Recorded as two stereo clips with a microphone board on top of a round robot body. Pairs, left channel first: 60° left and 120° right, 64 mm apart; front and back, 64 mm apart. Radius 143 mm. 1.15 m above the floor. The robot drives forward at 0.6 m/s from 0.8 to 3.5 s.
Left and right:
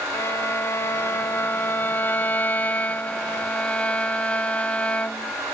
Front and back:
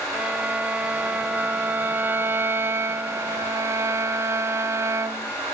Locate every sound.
0.1 s a violin: 110° left; by 5.3 s 130° left